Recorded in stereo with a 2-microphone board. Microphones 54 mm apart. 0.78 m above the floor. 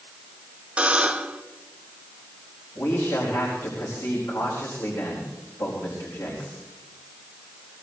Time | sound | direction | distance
0.8 | a buzzer | 20° right (ahead or behind) | 0.8 m
2.8 | a man speaking | 80° left | 4.5 m